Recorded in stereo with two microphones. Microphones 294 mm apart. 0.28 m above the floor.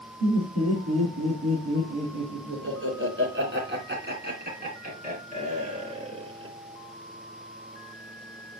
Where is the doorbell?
No doorbell in this recording.